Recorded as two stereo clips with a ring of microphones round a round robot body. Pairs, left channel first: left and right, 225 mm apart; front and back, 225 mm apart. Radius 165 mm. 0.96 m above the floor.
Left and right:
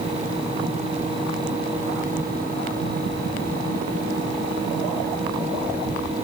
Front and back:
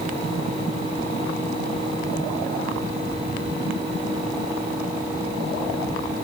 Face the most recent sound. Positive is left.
No sound to turn to.